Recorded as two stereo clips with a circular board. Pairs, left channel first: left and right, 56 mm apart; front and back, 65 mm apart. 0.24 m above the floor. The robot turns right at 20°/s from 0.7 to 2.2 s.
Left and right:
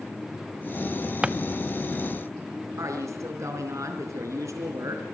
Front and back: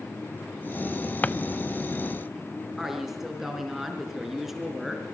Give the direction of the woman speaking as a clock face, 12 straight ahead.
3 o'clock.